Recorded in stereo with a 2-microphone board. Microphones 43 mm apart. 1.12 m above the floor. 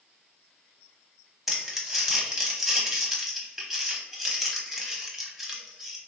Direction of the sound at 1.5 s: 5° right (ahead or behind).